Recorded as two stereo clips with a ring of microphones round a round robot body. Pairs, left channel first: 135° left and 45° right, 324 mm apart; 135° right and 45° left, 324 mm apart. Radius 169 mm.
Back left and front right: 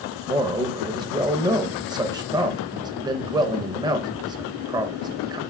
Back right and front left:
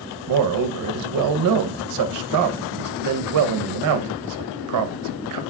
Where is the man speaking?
30° left, 0.8 m.